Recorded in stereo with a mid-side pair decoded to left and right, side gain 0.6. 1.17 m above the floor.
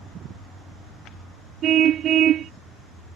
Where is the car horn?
50° right.